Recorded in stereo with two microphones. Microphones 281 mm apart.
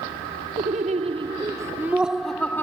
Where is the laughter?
30° right (ahead or behind); by 2.6 s 10° left (ahead or behind).